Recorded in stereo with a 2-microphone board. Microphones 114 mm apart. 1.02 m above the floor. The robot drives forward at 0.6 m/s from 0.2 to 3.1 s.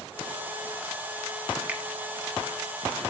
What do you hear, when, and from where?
1.7 s a finger snap: 15° right (ahead or behind), 1.4 m